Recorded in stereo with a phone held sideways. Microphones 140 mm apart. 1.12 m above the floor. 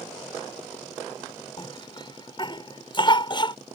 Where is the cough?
35° left (ahead or behind).